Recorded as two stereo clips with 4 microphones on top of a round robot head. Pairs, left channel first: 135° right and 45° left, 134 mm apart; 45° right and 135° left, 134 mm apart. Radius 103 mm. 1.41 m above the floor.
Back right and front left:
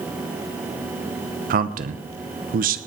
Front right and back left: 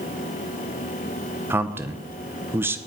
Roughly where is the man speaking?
Ahead left.